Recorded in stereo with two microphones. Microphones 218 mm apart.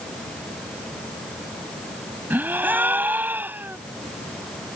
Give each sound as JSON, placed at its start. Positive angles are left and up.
{"t": 2.3, "sound": "a gasp", "side_deg": -10}